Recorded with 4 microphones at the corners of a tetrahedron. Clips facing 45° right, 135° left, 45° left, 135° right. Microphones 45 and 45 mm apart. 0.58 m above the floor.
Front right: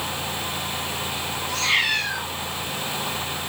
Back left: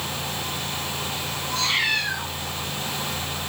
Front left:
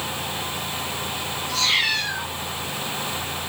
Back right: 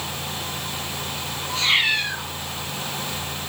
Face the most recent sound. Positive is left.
turn(degrees=-65)